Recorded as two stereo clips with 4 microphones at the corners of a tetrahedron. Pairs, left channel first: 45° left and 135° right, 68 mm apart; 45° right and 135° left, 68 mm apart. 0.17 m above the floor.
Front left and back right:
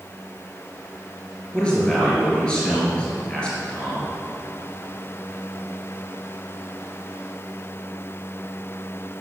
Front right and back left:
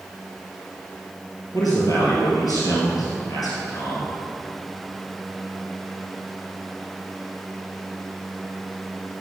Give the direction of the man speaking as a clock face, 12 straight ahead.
1 o'clock.